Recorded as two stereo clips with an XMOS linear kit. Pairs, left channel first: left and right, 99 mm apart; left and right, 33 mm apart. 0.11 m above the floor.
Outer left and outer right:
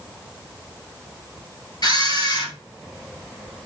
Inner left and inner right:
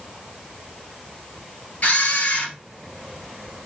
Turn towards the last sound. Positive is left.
turn(degrees=45)  # may be behind; listen again after turning